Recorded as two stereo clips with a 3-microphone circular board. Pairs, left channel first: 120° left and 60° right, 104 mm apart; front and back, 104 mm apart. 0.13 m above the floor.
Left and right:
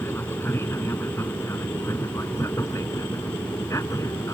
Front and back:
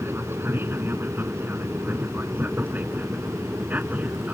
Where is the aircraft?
145° left; by 4.3 s 120° left.